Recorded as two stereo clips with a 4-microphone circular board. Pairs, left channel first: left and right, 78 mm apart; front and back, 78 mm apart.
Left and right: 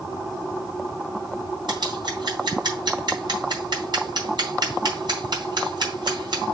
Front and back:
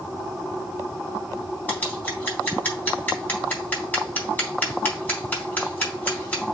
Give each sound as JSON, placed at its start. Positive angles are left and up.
{"t": 1.7, "sound": "scissors", "azimuth_deg": -65, "distance_m": 3.5}